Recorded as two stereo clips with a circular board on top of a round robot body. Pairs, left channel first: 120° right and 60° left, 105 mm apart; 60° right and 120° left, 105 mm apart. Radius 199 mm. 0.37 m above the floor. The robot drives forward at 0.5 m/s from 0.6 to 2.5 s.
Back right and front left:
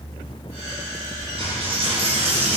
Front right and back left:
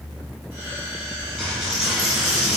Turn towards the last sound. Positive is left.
turn(degrees=30)